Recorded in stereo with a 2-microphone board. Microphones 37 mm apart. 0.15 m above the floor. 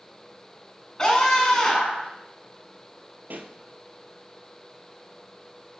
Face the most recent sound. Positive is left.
turn(degrees=-60)  # may be behind; listen again after turning